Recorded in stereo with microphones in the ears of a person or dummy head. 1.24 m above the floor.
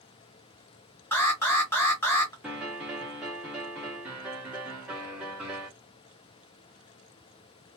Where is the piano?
Centre (ahead or behind), 0.8 m.